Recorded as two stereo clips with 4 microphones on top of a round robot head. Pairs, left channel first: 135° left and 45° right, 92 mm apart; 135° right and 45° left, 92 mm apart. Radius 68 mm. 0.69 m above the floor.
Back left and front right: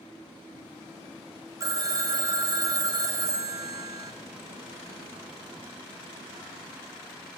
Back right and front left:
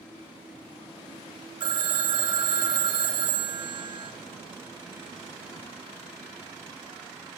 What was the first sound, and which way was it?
A phone ringing, 5° left.